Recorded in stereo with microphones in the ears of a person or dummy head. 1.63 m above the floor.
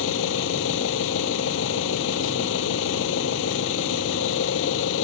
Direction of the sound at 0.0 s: 80° left.